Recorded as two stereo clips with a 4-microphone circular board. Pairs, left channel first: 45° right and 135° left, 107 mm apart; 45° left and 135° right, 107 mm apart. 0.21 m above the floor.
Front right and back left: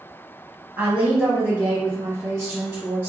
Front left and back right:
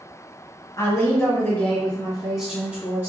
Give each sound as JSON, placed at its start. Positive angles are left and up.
{"t": 0.8, "sound": "a woman speaking", "azimuth_deg": 75, "distance_m": 1.4}